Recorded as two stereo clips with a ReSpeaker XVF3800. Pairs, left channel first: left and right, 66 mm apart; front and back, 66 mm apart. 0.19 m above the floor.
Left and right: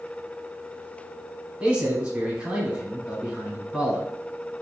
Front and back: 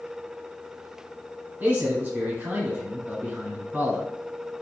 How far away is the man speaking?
About 1.4 m.